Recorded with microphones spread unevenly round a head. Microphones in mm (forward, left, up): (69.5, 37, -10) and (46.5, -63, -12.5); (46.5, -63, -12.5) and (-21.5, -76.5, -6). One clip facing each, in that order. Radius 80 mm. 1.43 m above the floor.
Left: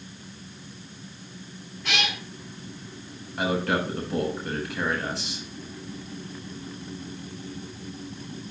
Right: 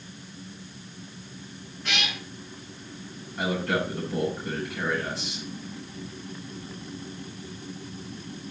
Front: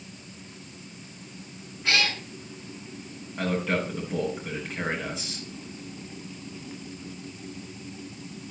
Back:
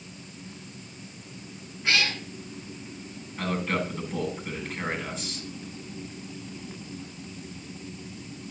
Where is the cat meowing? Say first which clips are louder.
Left 3 dB, even; 100° left, 6.5 m.